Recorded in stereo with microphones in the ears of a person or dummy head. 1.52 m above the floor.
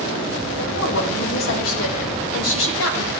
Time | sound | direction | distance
0.6 | a woman speaking | 75° left (ahead or behind) | 2 m